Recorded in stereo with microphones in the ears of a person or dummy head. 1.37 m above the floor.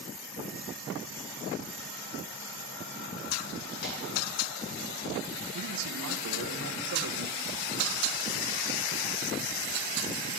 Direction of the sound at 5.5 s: 80° right.